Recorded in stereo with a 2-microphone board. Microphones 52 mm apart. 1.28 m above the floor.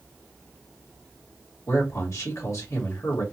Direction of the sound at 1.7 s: 75° left (ahead or behind).